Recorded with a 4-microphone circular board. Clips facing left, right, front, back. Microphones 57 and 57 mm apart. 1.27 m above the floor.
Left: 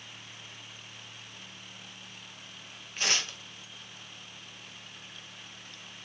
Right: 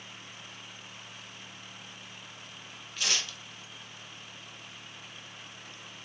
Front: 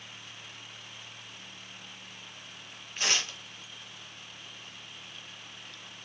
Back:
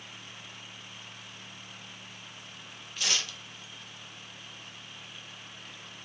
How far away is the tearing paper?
About 0.5 m.